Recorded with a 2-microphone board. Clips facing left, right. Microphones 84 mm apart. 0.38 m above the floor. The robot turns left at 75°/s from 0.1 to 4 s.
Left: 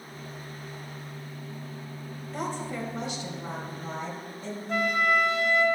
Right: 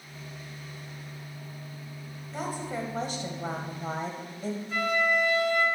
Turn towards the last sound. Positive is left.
turn(degrees=65)  # may be behind; listen again after turning